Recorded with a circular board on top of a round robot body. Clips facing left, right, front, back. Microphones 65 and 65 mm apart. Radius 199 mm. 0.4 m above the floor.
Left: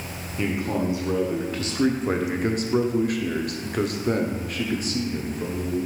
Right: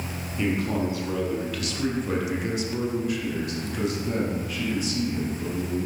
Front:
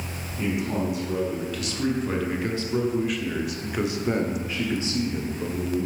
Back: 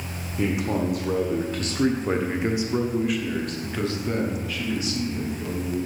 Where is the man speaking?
165° left, 1.5 m; by 5.9 s 50° left, 2 m.